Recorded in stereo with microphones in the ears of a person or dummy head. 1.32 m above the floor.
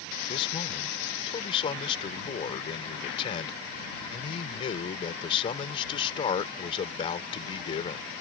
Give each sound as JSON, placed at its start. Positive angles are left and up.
{"t": 0.3, "sound": "a man speaking", "side_deg": 30}